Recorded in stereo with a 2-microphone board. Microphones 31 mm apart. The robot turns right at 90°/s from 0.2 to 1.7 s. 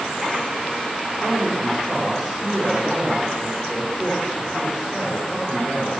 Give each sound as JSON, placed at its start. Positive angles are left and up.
{"t": 1.2, "sound": "a man speaking", "azimuth_deg": -55, "distance_m": 7.5}